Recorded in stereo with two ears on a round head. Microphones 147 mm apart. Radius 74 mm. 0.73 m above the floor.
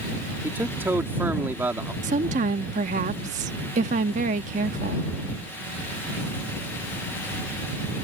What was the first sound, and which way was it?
A man speaking, 15° right (ahead or behind).